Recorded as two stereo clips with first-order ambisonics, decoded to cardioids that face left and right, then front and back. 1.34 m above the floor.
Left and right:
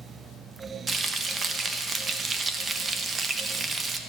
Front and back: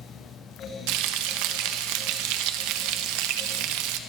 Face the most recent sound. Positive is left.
turn(degrees=-160)